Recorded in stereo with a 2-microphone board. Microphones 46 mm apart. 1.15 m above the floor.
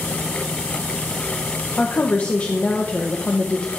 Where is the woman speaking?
30° left (ahead or behind), 0.6 m.